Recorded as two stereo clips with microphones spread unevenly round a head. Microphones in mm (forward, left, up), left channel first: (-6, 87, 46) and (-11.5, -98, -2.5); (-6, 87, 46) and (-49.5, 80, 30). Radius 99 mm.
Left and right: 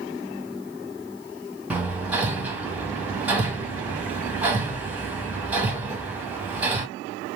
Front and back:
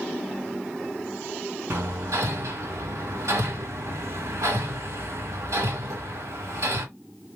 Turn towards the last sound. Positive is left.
turn(degrees=180)